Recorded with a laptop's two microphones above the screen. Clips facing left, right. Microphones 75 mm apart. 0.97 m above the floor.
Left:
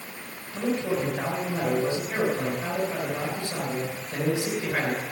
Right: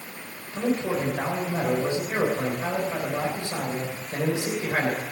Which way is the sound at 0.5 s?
25° right (ahead or behind).